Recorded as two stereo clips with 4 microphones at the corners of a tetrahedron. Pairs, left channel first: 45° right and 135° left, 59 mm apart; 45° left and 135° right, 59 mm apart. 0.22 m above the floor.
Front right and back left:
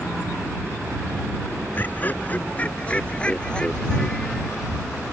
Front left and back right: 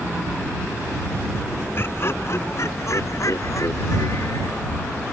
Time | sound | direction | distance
1.8 | laughter | 5° left | ?